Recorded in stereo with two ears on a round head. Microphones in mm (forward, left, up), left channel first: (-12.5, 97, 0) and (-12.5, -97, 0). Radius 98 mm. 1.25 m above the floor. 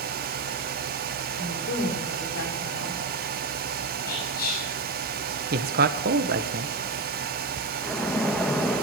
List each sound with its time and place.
1.4 s a woman speaking: 55° left (ahead or behind), 4.5 m
4.1 s whispering: 45° left (ahead or behind), 7 m
5.5 s a man speaking: 45° right (ahead or behind), 1.0 m
7.8 s a splash: 5° left (ahead or behind), 1.1 m